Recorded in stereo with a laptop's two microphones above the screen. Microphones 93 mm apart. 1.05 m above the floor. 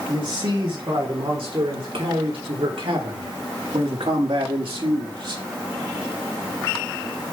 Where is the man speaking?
65° right (ahead or behind), 3.5 m; by 5.4 s 60° right (ahead or behind), 1.8 m.